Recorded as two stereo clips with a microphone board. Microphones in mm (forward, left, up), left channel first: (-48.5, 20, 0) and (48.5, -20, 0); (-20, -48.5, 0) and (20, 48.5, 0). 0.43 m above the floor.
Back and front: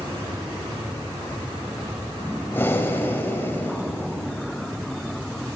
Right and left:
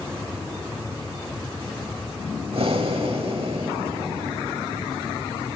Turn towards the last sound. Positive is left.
turn(degrees=90)